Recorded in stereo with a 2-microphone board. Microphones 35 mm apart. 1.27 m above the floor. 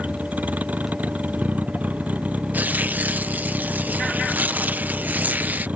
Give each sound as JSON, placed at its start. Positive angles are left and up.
{"t": 0.0, "sound": "a vehicle", "side_deg": -45}
{"t": 2.5, "sound": "tearing paper", "side_deg": -50}